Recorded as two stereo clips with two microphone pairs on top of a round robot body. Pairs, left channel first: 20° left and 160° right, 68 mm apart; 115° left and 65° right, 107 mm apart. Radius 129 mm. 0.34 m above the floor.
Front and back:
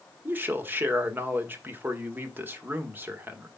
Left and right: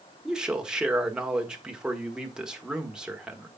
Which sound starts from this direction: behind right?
A man speaking, at 0.2 s.